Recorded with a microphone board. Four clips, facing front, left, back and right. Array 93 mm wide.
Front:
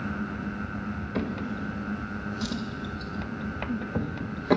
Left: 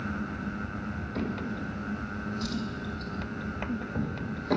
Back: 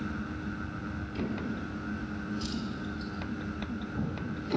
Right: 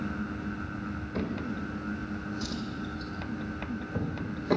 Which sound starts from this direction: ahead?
A drawer, at 1.1 s.